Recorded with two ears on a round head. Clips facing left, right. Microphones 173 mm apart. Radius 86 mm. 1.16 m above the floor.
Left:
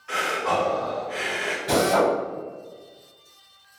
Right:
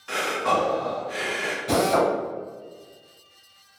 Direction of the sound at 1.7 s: 5° left (ahead or behind).